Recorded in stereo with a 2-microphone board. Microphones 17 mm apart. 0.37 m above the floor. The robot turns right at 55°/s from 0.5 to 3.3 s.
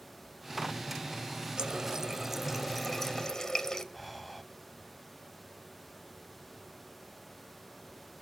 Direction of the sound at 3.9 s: 5° left (ahead or behind).